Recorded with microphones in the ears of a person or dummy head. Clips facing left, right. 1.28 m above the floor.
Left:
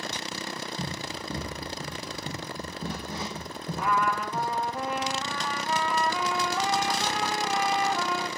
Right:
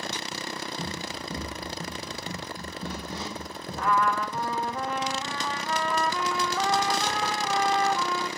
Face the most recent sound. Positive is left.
turn(degrees=10)  # may be behind; listen again after turning